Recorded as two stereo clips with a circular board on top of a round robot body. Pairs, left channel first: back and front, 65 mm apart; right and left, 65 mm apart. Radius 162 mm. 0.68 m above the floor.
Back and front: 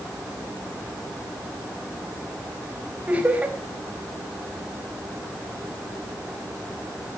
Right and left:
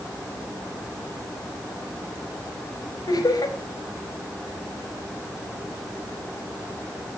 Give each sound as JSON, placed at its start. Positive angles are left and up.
{"t": 3.1, "sound": "laughter", "azimuth_deg": -70, "distance_m": 4.0}